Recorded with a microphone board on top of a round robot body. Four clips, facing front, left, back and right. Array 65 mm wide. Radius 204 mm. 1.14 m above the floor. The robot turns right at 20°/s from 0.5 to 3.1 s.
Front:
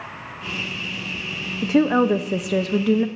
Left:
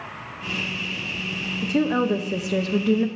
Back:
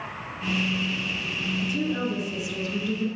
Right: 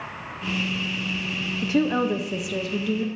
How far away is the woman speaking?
About 0.6 m.